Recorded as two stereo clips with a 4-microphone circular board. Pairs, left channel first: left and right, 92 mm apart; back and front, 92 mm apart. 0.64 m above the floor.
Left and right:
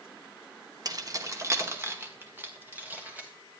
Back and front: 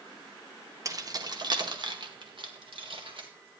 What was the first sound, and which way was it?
Keys jangling, 50° right.